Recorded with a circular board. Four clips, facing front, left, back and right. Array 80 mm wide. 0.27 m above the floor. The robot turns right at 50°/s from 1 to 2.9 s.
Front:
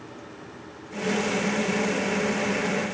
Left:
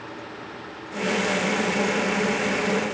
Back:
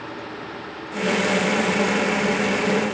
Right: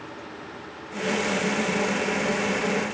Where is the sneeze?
No sneeze in this recording.